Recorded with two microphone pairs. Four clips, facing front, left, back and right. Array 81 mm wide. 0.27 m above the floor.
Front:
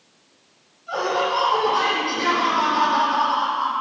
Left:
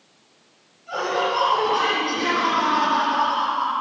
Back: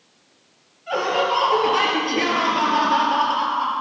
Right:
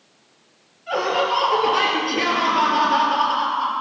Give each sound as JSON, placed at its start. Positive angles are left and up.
{"t": 0.9, "sound": "laughter", "azimuth_deg": -140, "distance_m": 6.5}